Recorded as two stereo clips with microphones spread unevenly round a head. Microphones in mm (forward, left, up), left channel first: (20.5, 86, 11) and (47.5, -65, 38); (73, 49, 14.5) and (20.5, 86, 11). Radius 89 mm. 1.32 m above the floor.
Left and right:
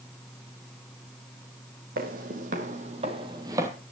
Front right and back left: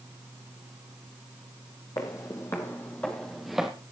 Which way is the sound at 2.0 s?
85° right.